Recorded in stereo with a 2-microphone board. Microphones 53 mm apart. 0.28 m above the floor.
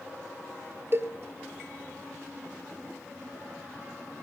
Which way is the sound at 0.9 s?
45° right (ahead or behind).